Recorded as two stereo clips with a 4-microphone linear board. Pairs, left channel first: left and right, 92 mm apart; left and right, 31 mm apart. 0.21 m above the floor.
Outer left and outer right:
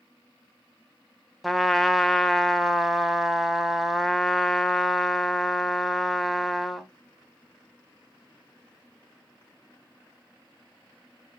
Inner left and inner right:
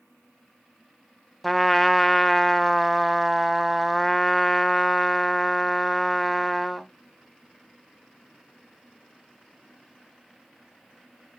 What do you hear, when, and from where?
1.4 s a trumpet: centre (ahead or behind), 0.6 m